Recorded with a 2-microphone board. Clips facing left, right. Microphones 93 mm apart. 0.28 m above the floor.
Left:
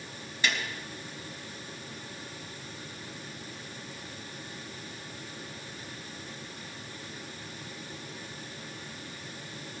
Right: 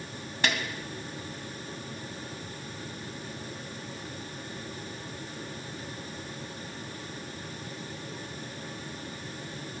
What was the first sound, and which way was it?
A snare drum, 55° right (ahead or behind).